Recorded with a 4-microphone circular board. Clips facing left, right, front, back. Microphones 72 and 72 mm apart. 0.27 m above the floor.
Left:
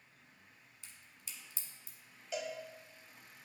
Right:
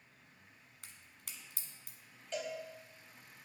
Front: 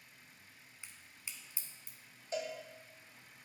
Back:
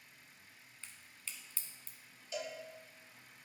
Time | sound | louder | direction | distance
0.8 | a crack | right 1 dB, even | 70° right | 1.1 m
2.3 | a cowbell | even, front 3 dB | 10° left | 1.2 m